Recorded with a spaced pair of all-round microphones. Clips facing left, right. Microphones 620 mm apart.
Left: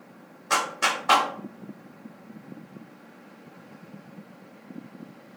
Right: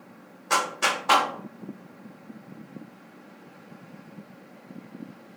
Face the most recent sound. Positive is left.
turn(degrees=5)  # may be behind; listen again after turning